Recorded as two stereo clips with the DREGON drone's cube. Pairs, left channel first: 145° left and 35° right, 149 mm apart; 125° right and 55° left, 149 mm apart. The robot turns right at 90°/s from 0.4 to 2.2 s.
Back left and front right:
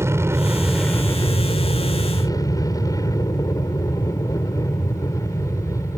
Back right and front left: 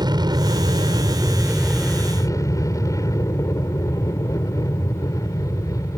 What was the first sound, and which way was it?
An aircraft, 25° left.